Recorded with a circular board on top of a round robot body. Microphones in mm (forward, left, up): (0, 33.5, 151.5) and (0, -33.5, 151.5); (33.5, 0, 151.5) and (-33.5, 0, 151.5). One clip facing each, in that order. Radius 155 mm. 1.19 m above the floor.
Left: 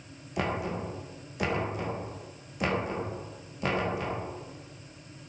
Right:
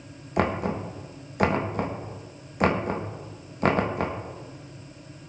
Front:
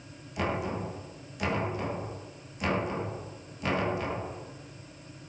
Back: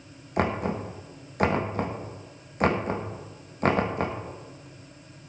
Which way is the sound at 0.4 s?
135° right.